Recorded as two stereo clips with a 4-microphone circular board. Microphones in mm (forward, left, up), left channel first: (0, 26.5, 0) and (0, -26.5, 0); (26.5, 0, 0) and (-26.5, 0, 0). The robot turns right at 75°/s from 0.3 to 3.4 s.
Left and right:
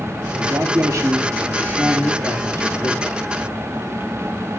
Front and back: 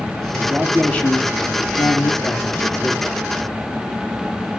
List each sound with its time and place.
0.3 s a man speaking: 115° right, 2 m; by 3.2 s 100° left, 2 m